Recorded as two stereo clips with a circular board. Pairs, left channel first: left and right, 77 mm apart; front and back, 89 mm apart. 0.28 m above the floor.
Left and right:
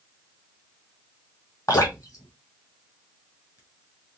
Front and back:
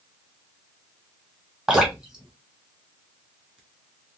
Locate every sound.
1.7 s dripping: 105° left, 2 m